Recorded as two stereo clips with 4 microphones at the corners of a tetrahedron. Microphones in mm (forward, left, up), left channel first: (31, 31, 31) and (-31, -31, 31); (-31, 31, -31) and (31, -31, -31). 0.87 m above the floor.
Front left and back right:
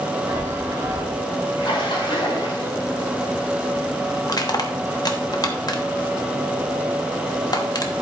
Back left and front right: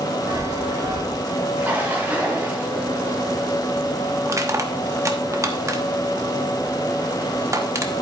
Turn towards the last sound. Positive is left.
turn(degrees=5)